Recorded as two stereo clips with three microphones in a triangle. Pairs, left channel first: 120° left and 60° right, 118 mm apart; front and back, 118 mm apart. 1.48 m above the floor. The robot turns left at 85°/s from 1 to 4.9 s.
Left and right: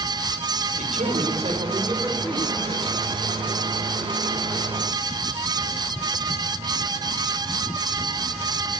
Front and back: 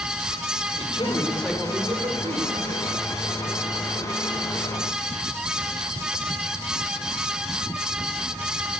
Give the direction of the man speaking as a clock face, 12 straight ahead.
2 o'clock.